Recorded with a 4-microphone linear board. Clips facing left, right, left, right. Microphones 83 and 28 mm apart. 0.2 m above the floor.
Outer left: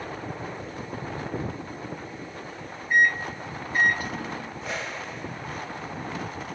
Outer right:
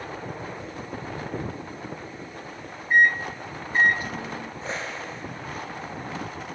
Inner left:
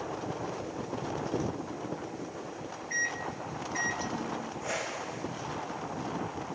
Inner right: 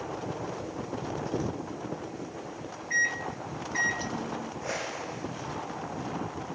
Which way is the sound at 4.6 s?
30° right (ahead or behind).